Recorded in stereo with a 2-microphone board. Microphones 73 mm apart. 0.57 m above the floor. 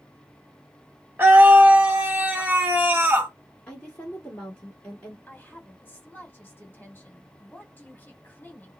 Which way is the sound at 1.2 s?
25° right (ahead or behind).